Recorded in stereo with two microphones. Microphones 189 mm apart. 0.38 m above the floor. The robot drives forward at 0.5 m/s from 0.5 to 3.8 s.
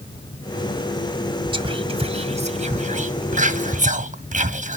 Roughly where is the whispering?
Right.